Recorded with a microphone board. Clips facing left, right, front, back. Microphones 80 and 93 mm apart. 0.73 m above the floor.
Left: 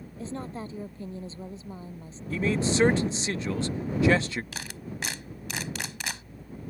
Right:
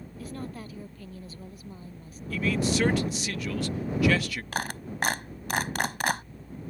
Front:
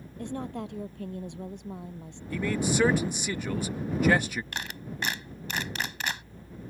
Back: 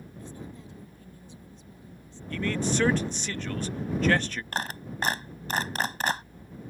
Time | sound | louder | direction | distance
0.2 | a woman speaking | left 3 dB, front 10 dB | 25° left | ?
2.3 | a man speaking | left 1 dB, even | 70° left | ?
4.5 | a clap | right 6 dB, back 4 dB | 130° right | ?